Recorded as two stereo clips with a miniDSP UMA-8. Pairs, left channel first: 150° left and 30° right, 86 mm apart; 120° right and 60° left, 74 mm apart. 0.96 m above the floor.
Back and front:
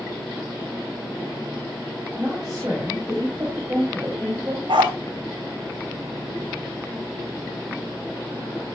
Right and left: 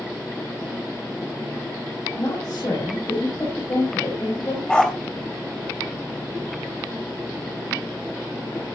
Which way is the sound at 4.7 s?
40° right.